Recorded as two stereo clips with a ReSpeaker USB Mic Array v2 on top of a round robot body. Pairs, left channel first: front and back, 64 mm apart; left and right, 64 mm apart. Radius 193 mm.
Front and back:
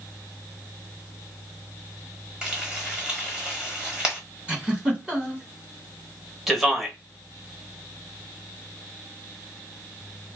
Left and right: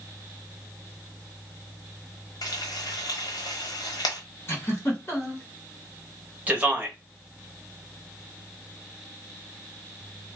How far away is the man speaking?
About 1.3 m.